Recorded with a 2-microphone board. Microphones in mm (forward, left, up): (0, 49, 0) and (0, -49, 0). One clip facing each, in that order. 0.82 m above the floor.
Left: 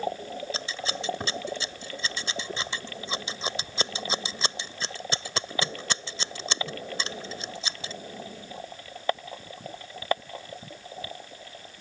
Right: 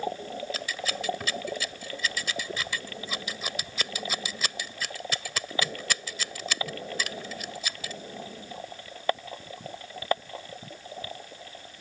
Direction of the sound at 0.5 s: 30° left (ahead or behind).